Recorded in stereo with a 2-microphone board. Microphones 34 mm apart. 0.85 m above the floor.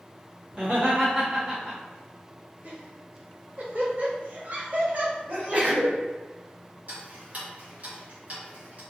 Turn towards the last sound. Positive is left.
turn(degrees=-55)  # may be behind; listen again after turning